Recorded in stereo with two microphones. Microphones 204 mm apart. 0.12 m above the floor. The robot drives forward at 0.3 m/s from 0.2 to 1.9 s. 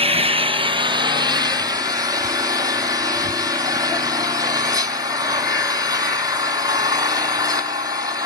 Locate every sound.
0.0 s an engine running: 30° right (ahead or behind), 0.8 m; by 8.3 s 15° right (ahead or behind), 1.2 m